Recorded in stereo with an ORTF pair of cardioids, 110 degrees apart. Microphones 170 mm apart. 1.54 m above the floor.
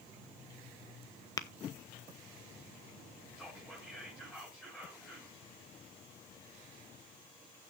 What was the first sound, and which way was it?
Tapping, 20° left.